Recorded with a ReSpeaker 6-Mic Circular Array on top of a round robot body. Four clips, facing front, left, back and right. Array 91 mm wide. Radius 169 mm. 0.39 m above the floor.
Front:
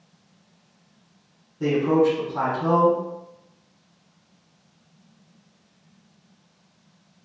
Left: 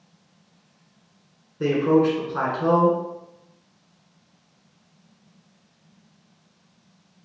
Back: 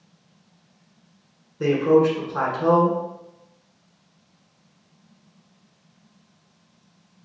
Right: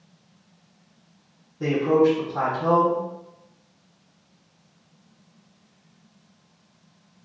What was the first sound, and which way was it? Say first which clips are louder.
A man speaking: even, back 2 dB; 145° left.